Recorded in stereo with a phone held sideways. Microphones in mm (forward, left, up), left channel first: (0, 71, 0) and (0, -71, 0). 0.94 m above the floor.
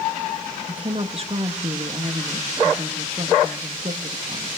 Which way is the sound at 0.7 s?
45° right (ahead or behind).